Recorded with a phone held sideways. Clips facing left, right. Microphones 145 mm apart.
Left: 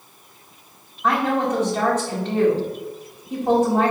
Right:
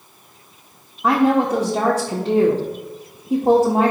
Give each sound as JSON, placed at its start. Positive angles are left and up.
{"t": 1.0, "sound": "a woman speaking", "side_deg": -35, "distance_m": 0.6}